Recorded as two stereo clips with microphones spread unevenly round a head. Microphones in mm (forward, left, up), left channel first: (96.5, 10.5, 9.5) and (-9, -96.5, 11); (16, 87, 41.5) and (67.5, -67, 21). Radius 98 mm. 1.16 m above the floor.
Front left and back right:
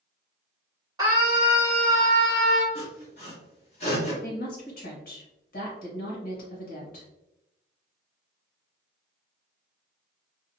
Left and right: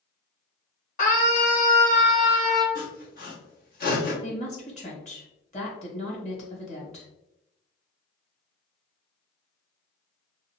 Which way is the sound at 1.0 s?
155° left.